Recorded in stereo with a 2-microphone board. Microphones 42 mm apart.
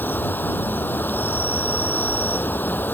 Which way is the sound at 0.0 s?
55° left (ahead or behind).